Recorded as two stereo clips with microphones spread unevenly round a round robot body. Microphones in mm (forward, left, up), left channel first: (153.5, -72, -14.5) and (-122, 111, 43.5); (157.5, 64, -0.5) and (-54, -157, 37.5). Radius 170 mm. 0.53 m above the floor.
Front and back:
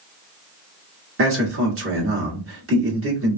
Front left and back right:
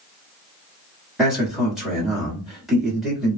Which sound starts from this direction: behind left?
A man speaking, at 1.2 s.